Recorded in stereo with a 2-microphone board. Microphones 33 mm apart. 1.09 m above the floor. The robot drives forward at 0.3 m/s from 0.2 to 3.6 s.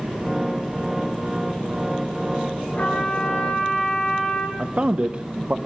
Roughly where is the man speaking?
Right.